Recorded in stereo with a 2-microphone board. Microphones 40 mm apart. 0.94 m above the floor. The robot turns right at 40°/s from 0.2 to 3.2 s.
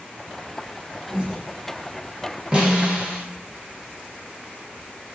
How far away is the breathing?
About 0.6 m.